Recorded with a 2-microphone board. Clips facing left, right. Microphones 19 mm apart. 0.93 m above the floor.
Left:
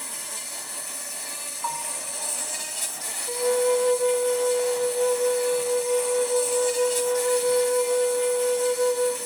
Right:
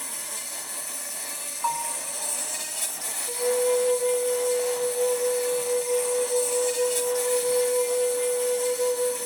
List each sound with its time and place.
0.0 s an insect: 10° left (ahead or behind), 1.0 m
1.6 s a bell: 15° right (ahead or behind), 0.6 m
3.3 s a flute: 65° left (ahead or behind), 1.2 m